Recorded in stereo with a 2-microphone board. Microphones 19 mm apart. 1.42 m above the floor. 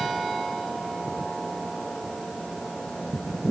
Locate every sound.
Only background noise.